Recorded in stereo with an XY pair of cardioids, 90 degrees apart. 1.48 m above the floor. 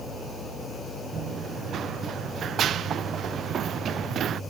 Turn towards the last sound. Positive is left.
turn(degrees=-65)